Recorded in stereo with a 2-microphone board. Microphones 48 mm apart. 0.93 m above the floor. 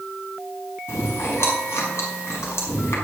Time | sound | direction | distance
0.9 | chewing | 70° left (ahead or behind) | 5 m